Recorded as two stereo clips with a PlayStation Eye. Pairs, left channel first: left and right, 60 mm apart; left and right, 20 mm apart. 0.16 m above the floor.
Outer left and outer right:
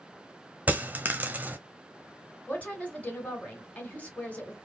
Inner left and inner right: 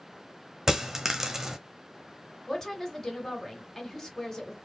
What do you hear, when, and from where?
0.7 s a dropped coin: 25° right (ahead or behind), 0.5 m
2.5 s a woman speaking: 25° left (ahead or behind), 1.7 m